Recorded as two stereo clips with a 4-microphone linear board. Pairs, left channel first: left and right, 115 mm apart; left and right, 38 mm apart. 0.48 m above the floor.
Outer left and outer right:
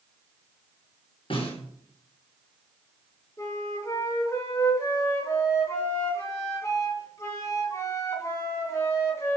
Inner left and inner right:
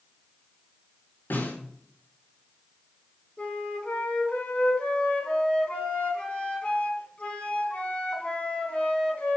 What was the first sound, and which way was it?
A snare drum, 50° left (ahead or behind).